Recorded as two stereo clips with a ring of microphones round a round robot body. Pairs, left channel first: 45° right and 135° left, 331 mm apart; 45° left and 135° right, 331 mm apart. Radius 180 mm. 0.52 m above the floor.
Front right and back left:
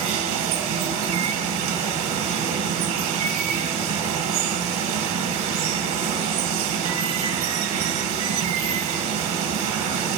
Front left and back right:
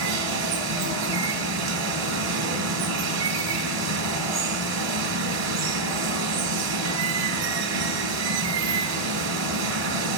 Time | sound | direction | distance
0.0 | running water | straight behind | 1.5 m